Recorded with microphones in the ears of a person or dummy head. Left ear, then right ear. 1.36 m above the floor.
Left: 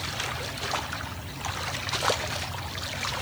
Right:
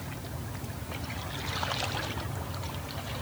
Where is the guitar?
I don't hear a guitar.